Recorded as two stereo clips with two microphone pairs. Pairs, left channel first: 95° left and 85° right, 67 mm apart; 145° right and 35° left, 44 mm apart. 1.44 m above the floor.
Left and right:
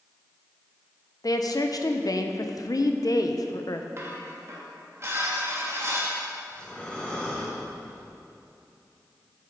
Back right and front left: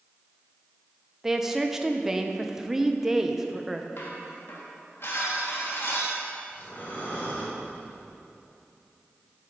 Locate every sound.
1.2 s a woman speaking: 110° left, 0.6 m
4.0 s dishes clattering: 130° right, 1.3 m
6.5 s breathing: 170° left, 1.7 m